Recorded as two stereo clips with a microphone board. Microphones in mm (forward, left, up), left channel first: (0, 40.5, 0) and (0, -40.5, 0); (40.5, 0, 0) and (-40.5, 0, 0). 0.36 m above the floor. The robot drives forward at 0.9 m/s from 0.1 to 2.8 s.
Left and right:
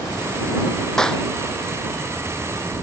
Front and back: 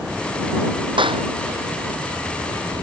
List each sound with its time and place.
1.0 s a clap: 170° left